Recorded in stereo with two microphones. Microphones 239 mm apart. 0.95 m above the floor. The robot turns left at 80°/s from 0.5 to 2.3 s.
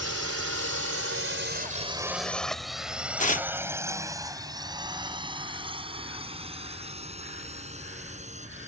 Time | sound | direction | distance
0.0 | a drone | 80° right | ?
3.2 | tearing paper | 30° left (ahead or behind) | ?